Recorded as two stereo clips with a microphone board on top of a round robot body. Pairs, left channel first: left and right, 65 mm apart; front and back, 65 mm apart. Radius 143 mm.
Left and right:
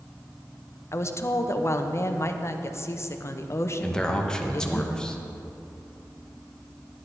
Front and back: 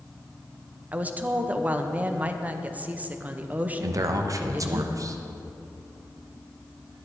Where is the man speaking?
165° left, 1.1 m.